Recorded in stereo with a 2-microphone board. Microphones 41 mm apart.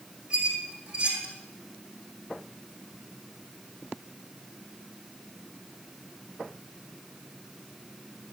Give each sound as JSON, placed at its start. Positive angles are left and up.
{"t": 0.3, "sound": "a squeak", "side_deg": -30, "distance_m": 3.0}